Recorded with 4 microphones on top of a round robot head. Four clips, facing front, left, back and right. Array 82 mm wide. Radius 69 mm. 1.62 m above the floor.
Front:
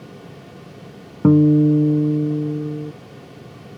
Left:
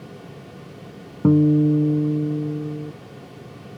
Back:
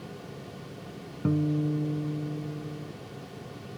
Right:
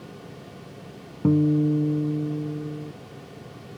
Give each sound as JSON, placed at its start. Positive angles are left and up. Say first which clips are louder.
{"t": 1.2, "sound": "a guitar", "louder": "left 4 dB, front 15 dB", "azimuth_deg": 15}